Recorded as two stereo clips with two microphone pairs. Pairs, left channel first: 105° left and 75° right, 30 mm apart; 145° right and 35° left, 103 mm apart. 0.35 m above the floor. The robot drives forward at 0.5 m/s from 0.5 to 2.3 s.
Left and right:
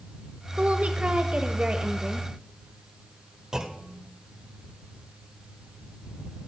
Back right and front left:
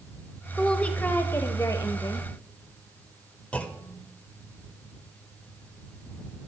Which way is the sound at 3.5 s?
95° right.